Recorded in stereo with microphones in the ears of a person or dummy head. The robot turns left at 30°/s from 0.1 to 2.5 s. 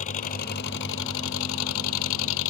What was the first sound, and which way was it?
An engine running, 145° left.